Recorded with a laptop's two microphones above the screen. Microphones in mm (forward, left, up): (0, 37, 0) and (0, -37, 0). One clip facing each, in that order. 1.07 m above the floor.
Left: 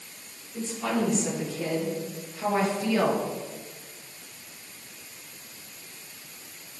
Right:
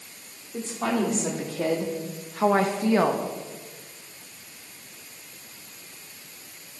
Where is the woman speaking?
55° right (ahead or behind), 3.5 m; by 3.3 s 20° right (ahead or behind), 1.6 m.